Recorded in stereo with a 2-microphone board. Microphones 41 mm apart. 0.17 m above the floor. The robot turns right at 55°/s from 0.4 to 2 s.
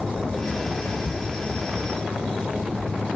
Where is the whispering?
65° left (ahead or behind), 3.5 m.